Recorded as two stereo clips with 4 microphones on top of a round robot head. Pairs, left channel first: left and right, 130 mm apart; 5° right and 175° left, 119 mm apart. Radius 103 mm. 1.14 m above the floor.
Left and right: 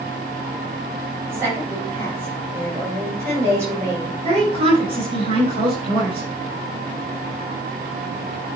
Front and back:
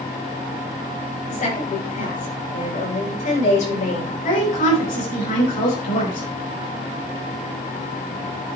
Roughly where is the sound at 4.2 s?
Ahead right.